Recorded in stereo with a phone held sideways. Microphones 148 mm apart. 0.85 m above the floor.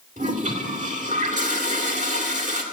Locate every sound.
0.2 s a toilet flushing: 55° right (ahead or behind), 1.9 m